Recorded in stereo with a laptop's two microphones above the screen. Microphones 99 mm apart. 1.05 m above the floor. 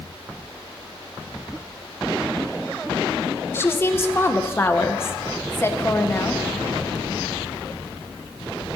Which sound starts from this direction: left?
A woman speaking, at 3.5 s.